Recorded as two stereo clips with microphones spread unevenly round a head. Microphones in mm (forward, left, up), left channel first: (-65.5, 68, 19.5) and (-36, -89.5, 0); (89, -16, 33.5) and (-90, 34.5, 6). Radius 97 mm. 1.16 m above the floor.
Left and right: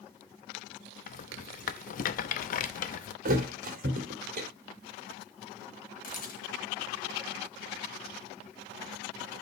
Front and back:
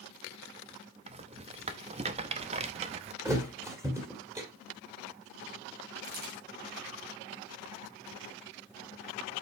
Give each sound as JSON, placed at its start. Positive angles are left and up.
{"t": 1.1, "sound": "a rattle", "azimuth_deg": 105, "distance_m": 0.7}
{"t": 3.2, "sound": "a thud", "azimuth_deg": -115, "distance_m": 1.8}
{"t": 6.0, "sound": "a camera shutter", "azimuth_deg": 125, "distance_m": 3.0}